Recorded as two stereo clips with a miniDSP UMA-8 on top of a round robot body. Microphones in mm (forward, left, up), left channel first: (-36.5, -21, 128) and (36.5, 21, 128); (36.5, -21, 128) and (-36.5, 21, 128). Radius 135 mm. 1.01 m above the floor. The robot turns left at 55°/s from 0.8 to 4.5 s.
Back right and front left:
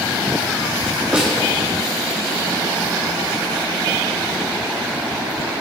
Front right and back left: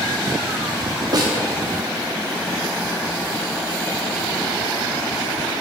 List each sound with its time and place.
1.1 s a snare drum: 110° left, 0.7 m; by 1.3 s 100° left, 0.7 m